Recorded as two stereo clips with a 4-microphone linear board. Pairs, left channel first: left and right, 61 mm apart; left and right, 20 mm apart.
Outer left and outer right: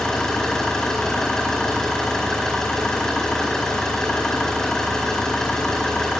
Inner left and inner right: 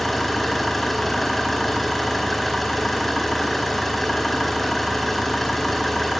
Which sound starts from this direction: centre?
An engine running, at 0.0 s.